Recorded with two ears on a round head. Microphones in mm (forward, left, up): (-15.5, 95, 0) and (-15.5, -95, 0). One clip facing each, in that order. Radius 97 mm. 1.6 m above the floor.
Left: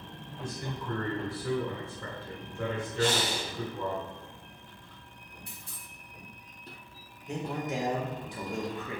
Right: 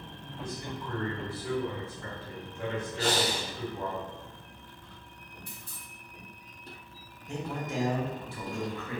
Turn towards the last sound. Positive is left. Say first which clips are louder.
# left 2 dB
turn(degrees=15)  # may be behind; listen again after turning